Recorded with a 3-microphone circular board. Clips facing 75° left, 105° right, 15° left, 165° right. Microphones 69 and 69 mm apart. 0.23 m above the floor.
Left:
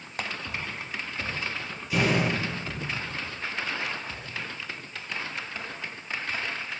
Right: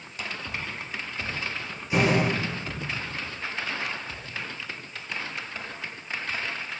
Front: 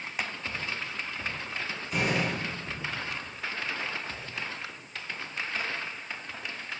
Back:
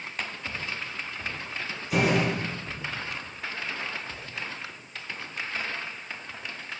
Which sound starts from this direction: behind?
A door slam, at 1.9 s.